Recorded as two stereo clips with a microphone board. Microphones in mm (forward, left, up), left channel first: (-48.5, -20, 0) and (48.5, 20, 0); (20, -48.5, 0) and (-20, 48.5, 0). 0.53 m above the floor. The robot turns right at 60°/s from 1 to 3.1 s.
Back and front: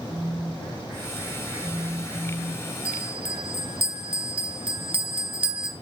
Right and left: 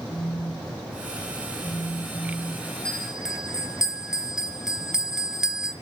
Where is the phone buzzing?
100° right, 5.5 m; by 2.8 s 5° left, 5.5 m.